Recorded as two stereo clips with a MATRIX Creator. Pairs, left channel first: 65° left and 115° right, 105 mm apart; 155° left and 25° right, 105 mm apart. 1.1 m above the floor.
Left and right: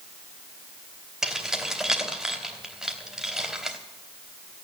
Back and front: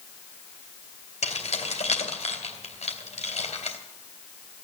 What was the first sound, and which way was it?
Keys jangling, 160° left.